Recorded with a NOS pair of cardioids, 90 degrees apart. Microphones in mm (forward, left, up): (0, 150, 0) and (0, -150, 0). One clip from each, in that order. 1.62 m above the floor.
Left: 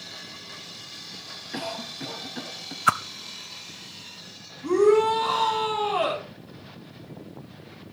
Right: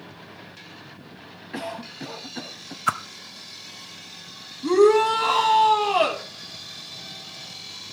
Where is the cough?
5° right, 1.3 m.